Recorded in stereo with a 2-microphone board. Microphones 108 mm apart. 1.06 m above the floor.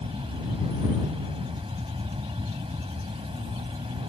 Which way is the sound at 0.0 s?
60° right (ahead or behind).